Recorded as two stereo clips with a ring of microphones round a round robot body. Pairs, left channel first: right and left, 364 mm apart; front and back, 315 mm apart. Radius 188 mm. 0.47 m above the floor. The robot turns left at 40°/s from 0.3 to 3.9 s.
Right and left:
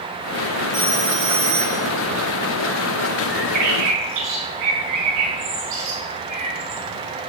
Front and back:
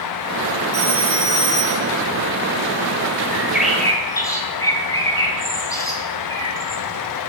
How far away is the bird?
About 4 m.